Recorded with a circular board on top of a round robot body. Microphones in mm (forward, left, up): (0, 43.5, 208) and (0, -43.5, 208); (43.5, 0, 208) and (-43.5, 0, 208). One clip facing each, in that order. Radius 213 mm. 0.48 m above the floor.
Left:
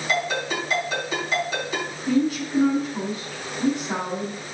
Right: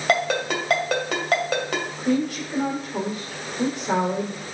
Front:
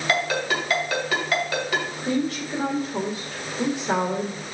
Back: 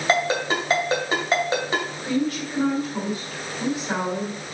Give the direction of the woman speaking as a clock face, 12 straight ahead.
2 o'clock.